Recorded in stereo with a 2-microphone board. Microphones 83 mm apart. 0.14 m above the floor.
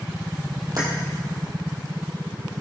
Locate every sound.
0.8 s keys jangling: 50° right (ahead or behind), 2.5 m